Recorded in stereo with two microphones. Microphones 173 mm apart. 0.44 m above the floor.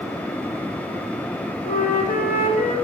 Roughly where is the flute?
Left.